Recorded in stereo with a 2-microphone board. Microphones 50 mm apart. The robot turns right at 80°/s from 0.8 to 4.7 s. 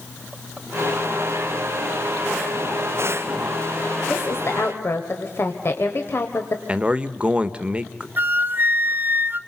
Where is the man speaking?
20° right (ahead or behind), 0.9 m.